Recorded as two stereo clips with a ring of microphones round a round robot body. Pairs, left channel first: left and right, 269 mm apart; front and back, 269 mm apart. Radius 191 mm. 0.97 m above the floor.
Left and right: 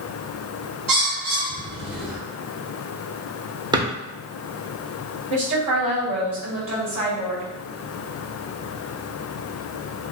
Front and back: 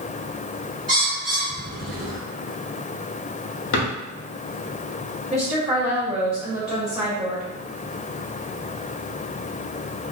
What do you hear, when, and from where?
0.9 s a bird: 110° right, 1.6 m
3.7 s a drawer: 15° right, 0.7 m
5.3 s a woman speaking: 80° right, 1.4 m